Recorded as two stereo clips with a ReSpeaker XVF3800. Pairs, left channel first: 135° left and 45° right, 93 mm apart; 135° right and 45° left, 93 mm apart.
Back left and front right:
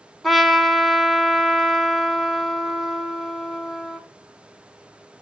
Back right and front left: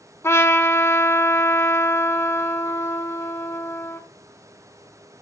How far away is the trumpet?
About 0.8 m.